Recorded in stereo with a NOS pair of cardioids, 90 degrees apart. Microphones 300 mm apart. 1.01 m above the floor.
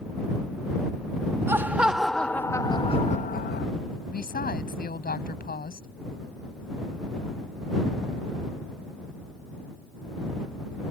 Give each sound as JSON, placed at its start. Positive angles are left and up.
{"t": 1.5, "sound": "laughter", "azimuth_deg": -10}
{"t": 4.1, "sound": "a woman speaking", "azimuth_deg": 30}